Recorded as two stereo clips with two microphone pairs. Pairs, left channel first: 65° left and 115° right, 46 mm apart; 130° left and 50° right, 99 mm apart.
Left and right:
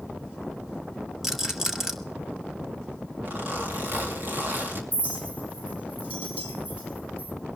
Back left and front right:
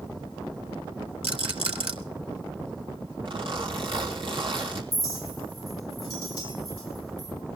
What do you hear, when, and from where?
1.2 s a rattle: 35° right, 2.0 m
3.2 s a zipper: 75° right, 3.5 m
4.9 s a clink: straight behind, 6.5 m